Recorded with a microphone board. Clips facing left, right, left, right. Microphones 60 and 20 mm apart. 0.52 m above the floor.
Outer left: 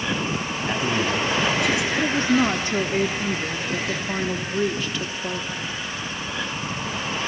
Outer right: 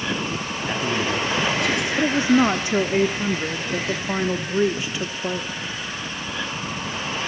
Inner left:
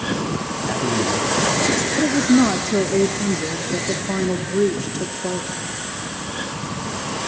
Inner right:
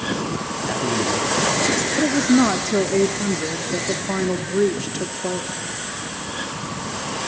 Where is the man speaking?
Centre (ahead or behind), 4.5 m.